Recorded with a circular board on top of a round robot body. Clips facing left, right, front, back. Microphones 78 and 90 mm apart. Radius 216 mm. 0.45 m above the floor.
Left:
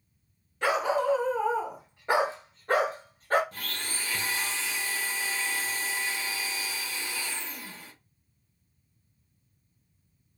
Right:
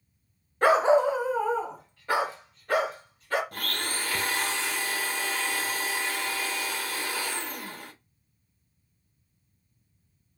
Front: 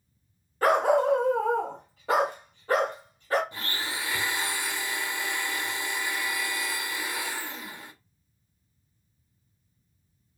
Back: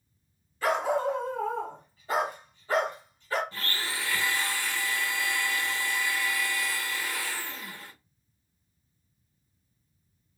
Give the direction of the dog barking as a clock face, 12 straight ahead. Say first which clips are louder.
Right 6 dB, front 5 dB; 1 o'clock.